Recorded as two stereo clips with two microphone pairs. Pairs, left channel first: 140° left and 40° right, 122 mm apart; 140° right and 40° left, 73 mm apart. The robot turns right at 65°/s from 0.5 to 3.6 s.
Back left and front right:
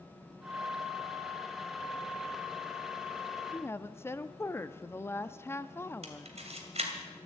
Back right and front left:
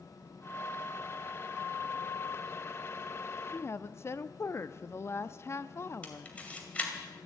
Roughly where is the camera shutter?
Right.